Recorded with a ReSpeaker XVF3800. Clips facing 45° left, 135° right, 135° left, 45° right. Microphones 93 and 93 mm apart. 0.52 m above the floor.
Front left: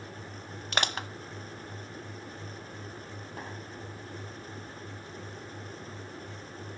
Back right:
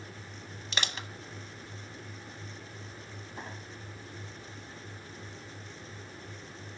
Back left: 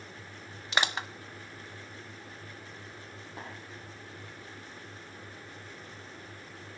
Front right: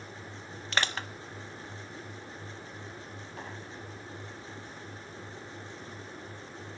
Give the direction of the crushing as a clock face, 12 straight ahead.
10 o'clock.